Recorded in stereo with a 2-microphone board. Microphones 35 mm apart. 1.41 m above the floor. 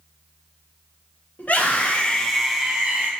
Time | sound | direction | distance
1.4 | a scream | 55° left (ahead or behind) | 1.8 m